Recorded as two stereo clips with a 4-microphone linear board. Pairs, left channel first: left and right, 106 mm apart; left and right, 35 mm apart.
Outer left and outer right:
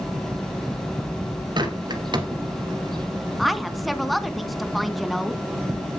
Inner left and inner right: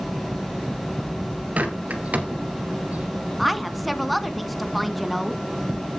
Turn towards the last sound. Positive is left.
turn(degrees=0)  # may be behind; listen again after turning